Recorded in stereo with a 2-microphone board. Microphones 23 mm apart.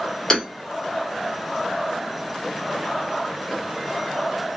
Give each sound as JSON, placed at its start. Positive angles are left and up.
{"t": 0.3, "sound": "hammering", "side_deg": 25, "distance_m": 1.4}